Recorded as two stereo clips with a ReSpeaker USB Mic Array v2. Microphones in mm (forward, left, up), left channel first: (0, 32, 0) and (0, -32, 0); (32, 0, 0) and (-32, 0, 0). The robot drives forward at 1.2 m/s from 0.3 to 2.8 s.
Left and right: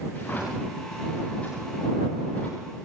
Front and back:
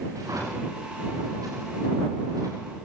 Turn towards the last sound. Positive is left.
turn(degrees=165)